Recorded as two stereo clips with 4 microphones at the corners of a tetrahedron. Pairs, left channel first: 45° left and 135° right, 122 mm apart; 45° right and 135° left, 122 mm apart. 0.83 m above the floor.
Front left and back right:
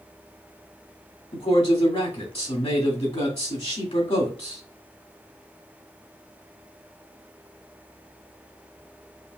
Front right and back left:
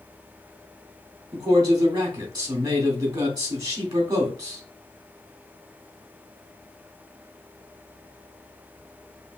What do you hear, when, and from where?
1.3 s a man speaking: 75° left, 2 m